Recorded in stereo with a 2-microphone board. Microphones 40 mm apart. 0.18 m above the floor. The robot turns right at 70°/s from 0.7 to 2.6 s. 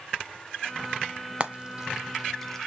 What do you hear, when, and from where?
1.4 s frying: 30° right (ahead or behind), 0.7 m; by 2.7 s 15° left (ahead or behind), 0.7 m